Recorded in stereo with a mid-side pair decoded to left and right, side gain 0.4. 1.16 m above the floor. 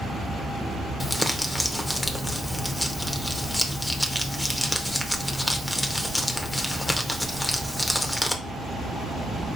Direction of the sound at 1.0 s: 5° left.